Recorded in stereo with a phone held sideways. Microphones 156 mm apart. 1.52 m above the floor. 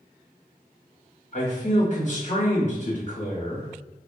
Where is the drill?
No drill in this recording.